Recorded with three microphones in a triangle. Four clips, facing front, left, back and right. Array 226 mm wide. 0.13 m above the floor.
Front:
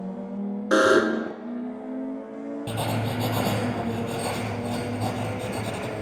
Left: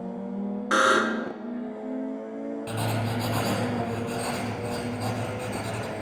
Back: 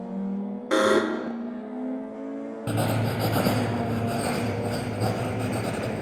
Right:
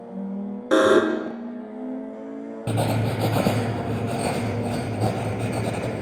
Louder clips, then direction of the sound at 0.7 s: Right 6 dB, front 2 dB; 75° right.